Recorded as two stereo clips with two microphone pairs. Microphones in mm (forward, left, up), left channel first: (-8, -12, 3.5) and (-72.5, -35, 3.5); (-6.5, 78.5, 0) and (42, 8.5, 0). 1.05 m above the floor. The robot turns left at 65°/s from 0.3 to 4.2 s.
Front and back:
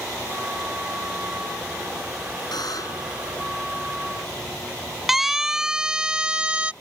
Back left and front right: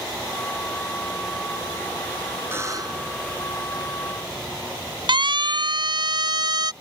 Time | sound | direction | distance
2.5 | a buzzer | 10° left | ?
5.1 | a siren | 75° right | ?